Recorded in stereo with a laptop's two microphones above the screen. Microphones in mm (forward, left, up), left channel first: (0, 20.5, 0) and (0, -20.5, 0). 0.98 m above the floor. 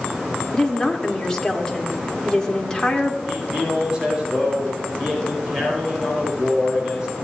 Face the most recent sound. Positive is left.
turn(degrees=-20)  # may be behind; listen again after turning